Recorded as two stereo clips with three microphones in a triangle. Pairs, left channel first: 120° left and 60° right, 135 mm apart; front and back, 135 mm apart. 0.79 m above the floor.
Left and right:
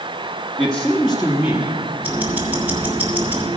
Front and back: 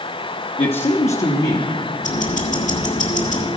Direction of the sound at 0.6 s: 40° left.